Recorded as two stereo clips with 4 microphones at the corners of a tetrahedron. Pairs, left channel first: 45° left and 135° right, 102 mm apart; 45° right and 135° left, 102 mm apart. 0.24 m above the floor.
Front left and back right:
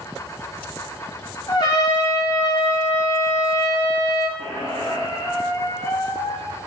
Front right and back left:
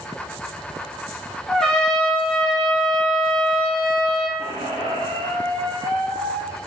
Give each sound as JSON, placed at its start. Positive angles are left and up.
{"t": 1.5, "sound": "a trumpet", "azimuth_deg": 35, "distance_m": 2.0}
{"t": 4.4, "sound": "a squeak", "azimuth_deg": 110, "distance_m": 3.0}